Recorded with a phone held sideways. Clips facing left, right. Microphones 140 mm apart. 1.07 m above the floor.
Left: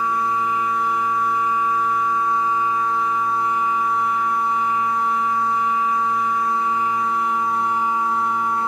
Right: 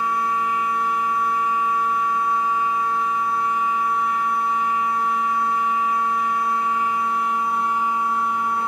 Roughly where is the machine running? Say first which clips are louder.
Left 1 dB; right.